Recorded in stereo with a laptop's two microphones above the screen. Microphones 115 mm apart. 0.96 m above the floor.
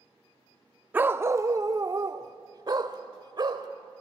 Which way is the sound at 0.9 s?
15° right (ahead or behind).